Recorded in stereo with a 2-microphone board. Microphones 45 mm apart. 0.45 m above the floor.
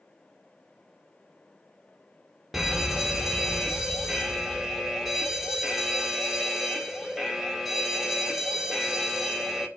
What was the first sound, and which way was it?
A fire alarm, 5° right (ahead or behind).